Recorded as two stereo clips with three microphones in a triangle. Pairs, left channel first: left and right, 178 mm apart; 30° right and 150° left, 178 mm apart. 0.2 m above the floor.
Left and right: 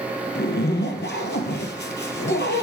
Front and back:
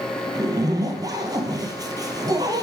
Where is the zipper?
85° left, 0.7 m.